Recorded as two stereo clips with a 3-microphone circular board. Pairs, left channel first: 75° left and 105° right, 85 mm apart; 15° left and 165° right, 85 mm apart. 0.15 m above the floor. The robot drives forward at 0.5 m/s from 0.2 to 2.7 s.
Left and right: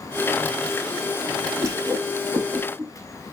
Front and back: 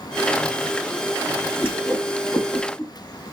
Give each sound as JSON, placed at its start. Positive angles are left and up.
{"t": 1.6, "sound": "a whoosh", "azimuth_deg": -50, "distance_m": 4.0}